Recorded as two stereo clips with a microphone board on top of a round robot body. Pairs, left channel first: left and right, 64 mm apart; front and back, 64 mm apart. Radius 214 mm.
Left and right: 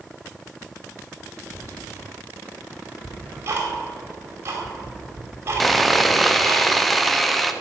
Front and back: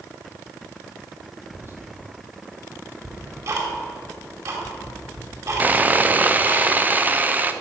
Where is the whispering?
135° right, 3 m.